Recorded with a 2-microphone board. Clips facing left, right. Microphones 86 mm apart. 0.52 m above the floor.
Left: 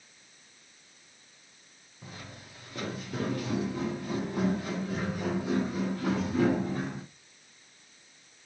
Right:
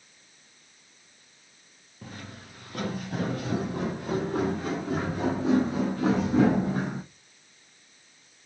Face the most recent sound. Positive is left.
turn(degrees=-65)  # may be behind; listen again after turning